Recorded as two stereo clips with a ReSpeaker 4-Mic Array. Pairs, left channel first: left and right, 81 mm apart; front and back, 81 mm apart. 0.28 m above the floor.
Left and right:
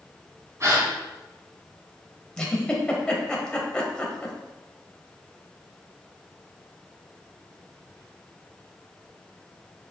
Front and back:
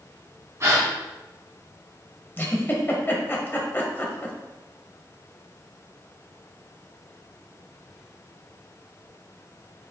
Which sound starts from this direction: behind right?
A gasp, at 0.6 s.